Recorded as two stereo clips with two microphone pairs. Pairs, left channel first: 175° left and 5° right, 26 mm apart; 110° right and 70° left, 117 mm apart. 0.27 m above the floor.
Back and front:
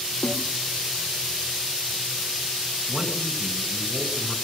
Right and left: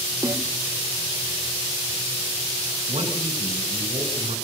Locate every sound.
0.2 s a snare drum: 130° left, 3 m
2.9 s a man speaking: 70° left, 3.5 m